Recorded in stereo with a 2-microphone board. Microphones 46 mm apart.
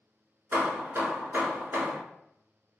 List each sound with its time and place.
0.5 s hammering: 50° right (ahead or behind), 0.9 m